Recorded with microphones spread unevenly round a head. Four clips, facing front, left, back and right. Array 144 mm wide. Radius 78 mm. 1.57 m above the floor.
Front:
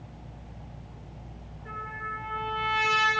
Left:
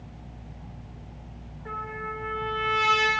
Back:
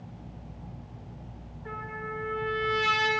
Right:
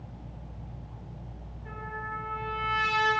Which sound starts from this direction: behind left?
A trumpet, at 1.6 s.